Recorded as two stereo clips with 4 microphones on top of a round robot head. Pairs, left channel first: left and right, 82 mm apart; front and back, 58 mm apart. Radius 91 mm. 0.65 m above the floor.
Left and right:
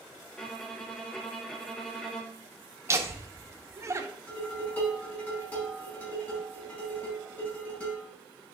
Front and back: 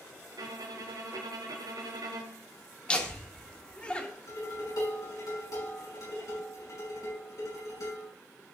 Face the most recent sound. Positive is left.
turn(degrees=20)